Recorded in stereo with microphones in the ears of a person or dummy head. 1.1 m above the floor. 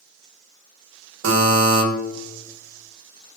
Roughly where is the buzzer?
Right.